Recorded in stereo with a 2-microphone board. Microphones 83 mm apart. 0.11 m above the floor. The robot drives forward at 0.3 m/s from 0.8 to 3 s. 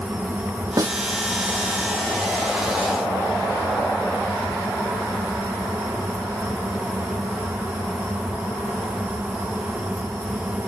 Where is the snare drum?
40° right (ahead or behind), 1.0 m.